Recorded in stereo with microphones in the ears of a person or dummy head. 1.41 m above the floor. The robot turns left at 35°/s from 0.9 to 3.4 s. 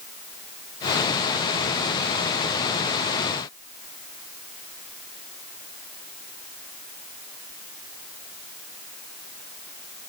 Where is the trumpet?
I don't hear a trumpet.